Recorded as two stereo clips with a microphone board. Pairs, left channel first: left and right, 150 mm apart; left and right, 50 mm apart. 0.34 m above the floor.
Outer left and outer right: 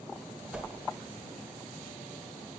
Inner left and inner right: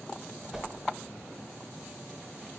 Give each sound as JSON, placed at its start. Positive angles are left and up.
{"t": 0.5, "sound": "a whoosh", "side_deg": -5, "distance_m": 0.6}